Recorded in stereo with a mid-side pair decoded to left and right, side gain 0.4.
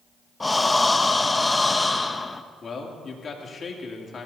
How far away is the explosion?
No explosion in this recording.